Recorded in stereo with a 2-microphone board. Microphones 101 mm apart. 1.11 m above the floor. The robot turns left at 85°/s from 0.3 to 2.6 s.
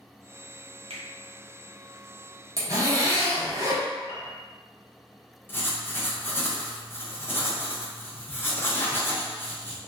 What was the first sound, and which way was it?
A finger snap, 70° right (ahead or behind).